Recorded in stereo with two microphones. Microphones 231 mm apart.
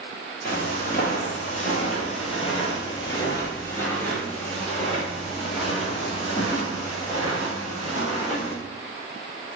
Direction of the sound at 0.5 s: 40° left (ahead or behind).